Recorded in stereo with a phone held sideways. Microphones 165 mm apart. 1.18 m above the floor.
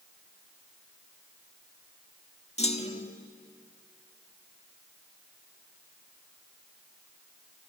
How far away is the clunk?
About 1.3 m.